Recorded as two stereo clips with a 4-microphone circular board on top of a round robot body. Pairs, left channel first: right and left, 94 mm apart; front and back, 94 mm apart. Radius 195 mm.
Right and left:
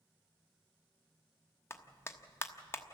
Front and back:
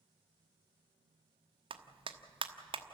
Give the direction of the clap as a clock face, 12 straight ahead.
5 o'clock.